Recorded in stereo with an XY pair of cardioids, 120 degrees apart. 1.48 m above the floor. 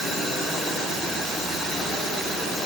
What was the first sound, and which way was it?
Only background noise.